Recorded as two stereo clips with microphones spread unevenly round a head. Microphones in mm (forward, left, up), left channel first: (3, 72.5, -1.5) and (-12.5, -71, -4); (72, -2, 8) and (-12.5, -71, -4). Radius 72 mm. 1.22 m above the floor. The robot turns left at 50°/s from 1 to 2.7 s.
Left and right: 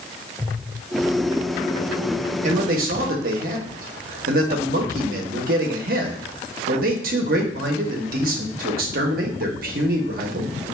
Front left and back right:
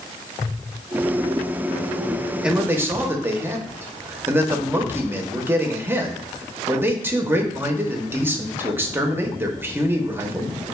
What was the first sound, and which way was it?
A man speaking, 60° right.